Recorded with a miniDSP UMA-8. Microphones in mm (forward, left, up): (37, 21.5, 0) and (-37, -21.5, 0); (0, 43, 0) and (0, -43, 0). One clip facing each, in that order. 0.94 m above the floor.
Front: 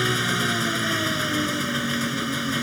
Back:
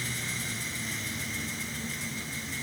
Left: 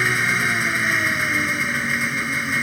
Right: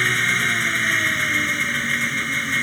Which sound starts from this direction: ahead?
An engine running, at 0.0 s.